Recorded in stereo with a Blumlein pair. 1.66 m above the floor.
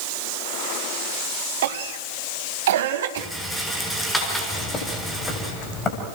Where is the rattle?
5° left, 6.5 m.